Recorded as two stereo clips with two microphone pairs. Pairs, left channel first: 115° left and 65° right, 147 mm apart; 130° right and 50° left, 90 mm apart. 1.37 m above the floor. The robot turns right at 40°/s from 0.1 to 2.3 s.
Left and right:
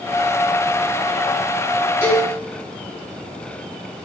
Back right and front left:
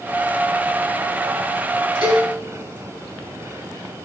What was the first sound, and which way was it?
A cowbell, 35° left.